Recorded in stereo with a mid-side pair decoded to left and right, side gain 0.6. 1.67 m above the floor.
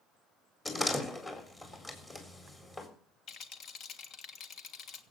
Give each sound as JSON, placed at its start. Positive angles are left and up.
{"t": 0.7, "sound": "a door slam", "azimuth_deg": 20, "distance_m": 4.0}
{"t": 3.3, "sound": "a rattle", "azimuth_deg": 55, "distance_m": 1.6}